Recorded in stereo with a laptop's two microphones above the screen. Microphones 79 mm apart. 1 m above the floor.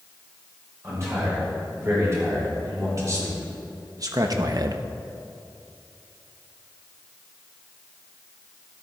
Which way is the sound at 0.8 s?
35° right (ahead or behind).